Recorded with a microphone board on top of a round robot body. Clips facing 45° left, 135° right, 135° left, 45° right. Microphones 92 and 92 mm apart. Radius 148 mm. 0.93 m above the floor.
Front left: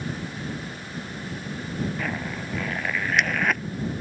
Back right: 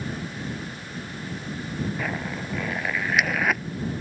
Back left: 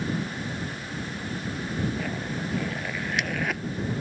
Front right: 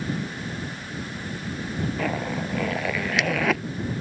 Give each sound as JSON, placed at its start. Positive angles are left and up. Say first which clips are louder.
{"t": 2.0, "sound": "a zipper", "louder": "even, front right 4 dB", "azimuth_deg": -50}